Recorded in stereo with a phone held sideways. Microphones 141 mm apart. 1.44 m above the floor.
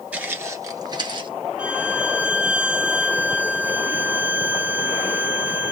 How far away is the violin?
About 1.0 m.